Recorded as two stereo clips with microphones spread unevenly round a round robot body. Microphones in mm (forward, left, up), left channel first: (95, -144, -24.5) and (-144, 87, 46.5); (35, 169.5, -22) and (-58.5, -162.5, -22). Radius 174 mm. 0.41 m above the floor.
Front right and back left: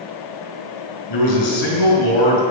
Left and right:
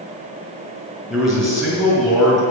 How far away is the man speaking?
About 5 m.